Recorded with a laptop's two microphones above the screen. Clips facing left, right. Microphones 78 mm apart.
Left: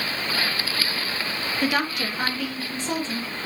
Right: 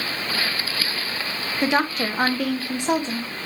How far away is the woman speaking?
About 0.7 m.